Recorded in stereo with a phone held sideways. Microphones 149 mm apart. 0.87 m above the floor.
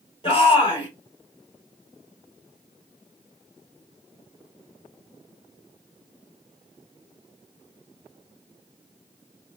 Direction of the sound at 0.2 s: 40° left (ahead or behind).